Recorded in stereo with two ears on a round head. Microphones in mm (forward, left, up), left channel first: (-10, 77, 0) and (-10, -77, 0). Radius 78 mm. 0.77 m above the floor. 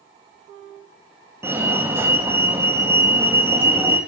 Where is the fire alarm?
15° right (ahead or behind), 1.5 m.